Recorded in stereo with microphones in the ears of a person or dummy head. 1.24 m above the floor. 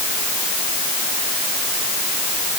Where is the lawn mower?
No lawn mower in this recording.